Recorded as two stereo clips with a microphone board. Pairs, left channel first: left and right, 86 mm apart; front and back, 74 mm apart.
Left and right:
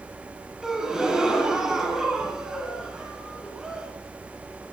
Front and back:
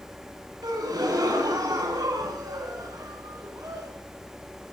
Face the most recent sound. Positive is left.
turn(degrees=-170)